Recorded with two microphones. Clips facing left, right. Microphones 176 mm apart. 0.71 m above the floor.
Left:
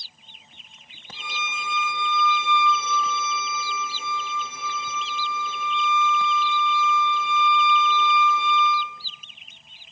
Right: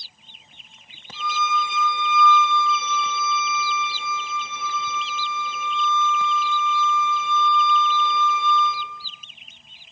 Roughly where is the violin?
Left.